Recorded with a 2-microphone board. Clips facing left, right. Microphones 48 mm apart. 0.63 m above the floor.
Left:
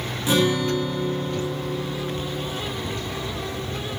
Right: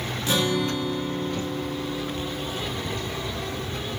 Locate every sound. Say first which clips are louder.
0.3 s a guitar: left 4 dB; 15° left (ahead or behind), 0.9 m